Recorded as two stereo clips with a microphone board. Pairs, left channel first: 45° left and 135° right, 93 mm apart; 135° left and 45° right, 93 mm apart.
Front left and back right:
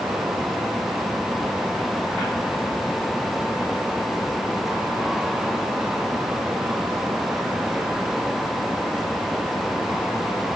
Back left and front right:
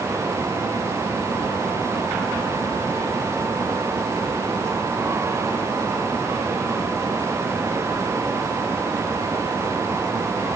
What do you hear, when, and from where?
Only background noise.